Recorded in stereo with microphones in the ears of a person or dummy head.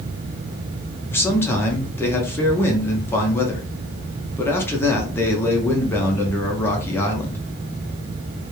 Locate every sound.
1.1 s a man speaking: 15° left (ahead or behind), 0.5 m